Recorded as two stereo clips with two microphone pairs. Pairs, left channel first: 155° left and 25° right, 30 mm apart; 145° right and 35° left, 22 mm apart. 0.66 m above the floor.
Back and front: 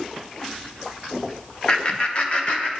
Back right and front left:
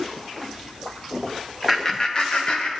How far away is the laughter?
About 0.6 m.